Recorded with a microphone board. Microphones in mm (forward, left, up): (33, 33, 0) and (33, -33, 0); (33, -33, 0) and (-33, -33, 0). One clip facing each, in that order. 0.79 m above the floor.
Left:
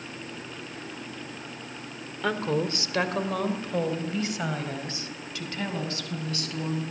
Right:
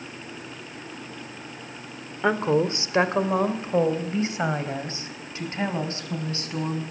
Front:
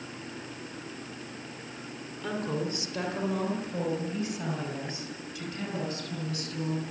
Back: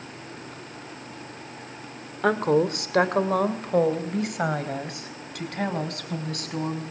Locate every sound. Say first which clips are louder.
2.2 s a woman speaking: right 5 dB, back 11 dB; 155° right, 2.5 m; by 6.8 s 150° right, 6.5 m